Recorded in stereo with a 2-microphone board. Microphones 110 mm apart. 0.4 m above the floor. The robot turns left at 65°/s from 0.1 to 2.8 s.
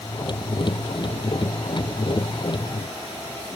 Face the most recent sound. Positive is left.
No sound to turn to.